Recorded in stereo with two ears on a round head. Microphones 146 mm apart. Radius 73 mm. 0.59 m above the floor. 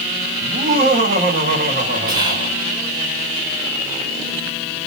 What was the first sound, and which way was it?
Laughter, 45° right (ahead or behind).